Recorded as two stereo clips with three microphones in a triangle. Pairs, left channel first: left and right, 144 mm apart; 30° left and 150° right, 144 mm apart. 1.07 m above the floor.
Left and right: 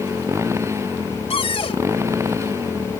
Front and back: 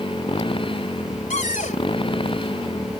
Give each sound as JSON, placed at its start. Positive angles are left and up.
{"t": 0.0, "sound": "a motorcycle", "azimuth_deg": -20}
{"t": 1.3, "sound": "a cupboard door", "azimuth_deg": 45}